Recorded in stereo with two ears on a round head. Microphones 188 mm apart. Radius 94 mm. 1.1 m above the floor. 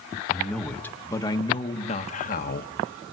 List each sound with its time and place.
0.3 s a man speaking: centre (ahead or behind), 1.4 m; by 2.7 s 50° left (ahead or behind), 1.4 m